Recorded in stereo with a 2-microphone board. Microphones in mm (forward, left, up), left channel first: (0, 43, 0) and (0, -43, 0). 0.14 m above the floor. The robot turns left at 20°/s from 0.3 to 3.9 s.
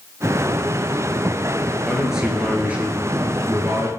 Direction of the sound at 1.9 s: 5° right.